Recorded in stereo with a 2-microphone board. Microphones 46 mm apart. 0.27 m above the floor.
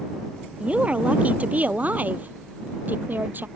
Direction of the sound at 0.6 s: 25° right (ahead or behind).